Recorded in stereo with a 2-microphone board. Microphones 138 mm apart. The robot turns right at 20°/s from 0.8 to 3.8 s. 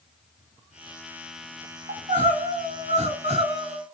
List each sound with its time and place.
1.9 s crying: 90° right, 0.8 m; by 3.8 s 55° right, 0.8 m